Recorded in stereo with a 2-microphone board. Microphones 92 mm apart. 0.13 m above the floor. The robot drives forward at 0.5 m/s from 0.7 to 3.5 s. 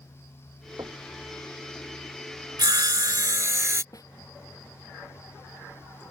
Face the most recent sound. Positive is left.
turn(degrees=45)  # may be behind; listen again after turning